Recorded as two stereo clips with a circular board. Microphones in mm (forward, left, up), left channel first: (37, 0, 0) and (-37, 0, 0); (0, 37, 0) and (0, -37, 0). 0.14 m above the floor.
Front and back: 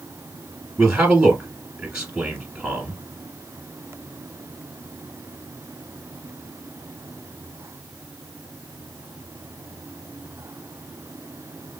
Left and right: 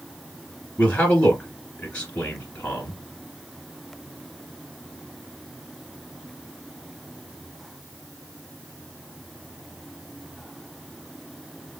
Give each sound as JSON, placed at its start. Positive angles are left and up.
{"t": 0.8, "sound": "a man speaking", "azimuth_deg": 125, "distance_m": 1.1}